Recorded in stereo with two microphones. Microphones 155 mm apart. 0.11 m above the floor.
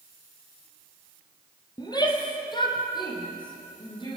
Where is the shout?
25° left (ahead or behind), 4 m; by 4.2 s 30° left (ahead or behind), 6.5 m.